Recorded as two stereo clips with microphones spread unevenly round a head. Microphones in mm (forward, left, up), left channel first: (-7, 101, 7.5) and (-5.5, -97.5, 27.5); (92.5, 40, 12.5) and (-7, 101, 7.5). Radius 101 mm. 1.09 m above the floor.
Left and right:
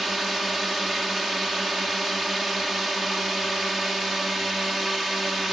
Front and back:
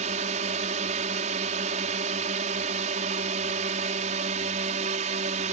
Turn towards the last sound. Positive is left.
turn(degrees=180)